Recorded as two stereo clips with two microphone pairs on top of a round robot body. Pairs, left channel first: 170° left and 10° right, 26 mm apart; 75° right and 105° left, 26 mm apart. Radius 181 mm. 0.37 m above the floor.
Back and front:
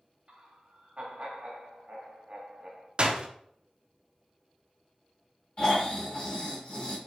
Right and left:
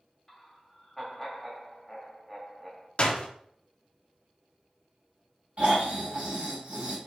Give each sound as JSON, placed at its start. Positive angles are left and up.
{"t": 0.3, "sound": "laughter", "azimuth_deg": 10, "distance_m": 2.0}
{"t": 3.0, "sound": "a door slam", "azimuth_deg": -45, "distance_m": 1.0}
{"t": 5.6, "sound": "snoring", "azimuth_deg": 120, "distance_m": 3.0}